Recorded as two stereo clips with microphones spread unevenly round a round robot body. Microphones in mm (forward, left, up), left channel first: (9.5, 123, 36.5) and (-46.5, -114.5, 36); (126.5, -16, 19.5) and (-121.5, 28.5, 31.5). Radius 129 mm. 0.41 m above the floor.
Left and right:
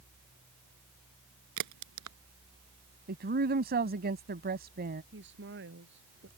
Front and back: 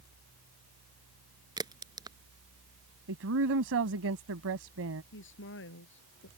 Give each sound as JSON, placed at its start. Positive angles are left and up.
{"t": 1.6, "sound": "a crack", "azimuth_deg": -115}
{"t": 3.1, "sound": "a woman speaking", "azimuth_deg": -155}
{"t": 5.1, "sound": "a woman speaking", "azimuth_deg": -55}